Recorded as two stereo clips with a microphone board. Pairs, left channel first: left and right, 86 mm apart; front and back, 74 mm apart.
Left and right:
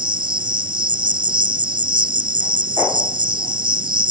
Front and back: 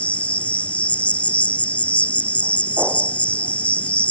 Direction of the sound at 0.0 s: 70° right.